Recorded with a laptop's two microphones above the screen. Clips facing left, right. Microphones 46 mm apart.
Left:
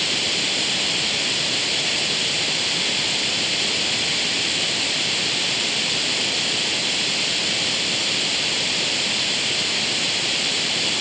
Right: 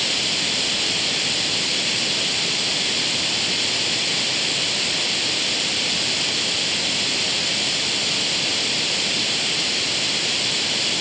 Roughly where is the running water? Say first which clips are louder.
Even; centre.